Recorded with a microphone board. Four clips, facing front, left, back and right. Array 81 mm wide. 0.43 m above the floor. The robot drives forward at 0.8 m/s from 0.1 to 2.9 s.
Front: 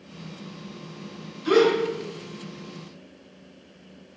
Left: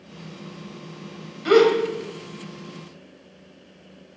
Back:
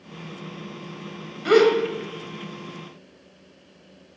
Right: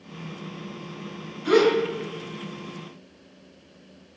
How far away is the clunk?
No clunk in this recording.